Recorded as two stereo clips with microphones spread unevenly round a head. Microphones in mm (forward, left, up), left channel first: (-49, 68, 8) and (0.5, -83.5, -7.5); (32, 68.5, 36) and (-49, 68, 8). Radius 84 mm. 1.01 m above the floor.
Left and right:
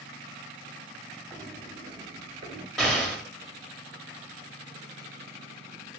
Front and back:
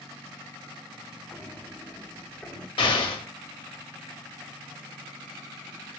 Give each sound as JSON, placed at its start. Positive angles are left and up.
{"t": 1.3, "sound": "footsteps", "azimuth_deg": 15, "distance_m": 1.4}
{"t": 2.8, "sound": "an explosion", "azimuth_deg": 15, "distance_m": 1.2}